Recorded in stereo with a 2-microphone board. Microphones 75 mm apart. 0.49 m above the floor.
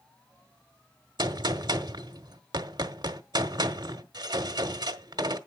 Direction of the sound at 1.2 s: 70° right (ahead or behind).